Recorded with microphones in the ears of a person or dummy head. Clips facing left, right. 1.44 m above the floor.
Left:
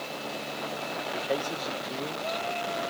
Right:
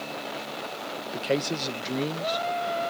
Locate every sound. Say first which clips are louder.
1.1 s a man speaking: right 5 dB; 30° right (ahead or behind); by 2.8 s 40° right (ahead or behind)